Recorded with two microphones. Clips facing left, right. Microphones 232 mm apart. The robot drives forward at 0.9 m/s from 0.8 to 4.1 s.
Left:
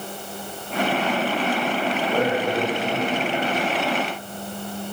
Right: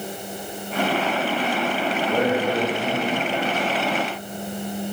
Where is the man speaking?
10° right (ahead or behind), 3.5 m; by 3.6 s 5° right (ahead or behind), 5 m.